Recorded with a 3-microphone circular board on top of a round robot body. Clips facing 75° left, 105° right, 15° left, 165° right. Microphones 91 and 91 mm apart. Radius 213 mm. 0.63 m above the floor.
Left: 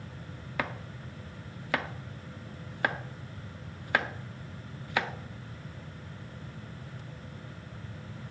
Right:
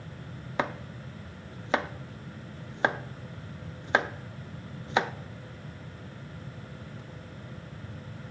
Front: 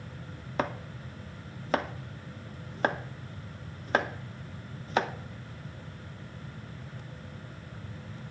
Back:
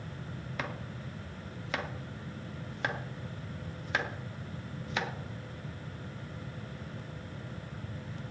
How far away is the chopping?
About 0.5 m.